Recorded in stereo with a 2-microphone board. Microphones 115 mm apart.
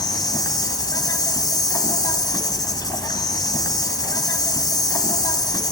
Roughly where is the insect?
Left.